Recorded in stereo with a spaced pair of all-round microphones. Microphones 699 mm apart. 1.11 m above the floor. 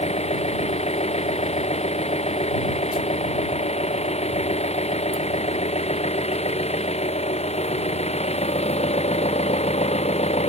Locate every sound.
0.0 s an engine running: 10° left (ahead or behind)